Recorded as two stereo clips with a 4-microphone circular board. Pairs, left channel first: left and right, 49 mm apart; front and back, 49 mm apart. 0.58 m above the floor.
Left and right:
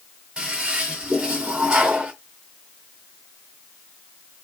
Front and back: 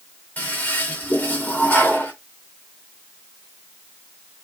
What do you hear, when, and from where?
0.4 s a toilet flushing: 30° right, 1.7 m